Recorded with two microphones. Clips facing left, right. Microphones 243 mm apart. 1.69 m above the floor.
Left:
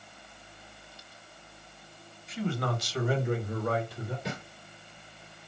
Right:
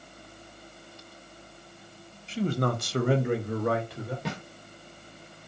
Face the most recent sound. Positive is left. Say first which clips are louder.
# right 2 dB
turn(degrees=-75)  # may be behind; listen again after turning